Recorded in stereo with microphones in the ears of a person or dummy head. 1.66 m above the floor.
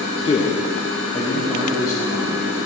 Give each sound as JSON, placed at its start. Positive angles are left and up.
{"t": 0.2, "sound": "a man speaking", "side_deg": 25, "distance_m": 0.6}